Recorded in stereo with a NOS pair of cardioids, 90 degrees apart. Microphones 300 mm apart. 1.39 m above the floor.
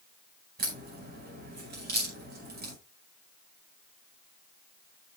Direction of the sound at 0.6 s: 35° right.